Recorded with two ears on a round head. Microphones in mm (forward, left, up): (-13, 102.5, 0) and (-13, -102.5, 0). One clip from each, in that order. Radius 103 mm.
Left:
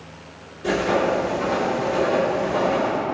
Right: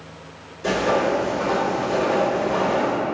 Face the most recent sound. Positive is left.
turn(degrees=-40)  # may be behind; listen again after turning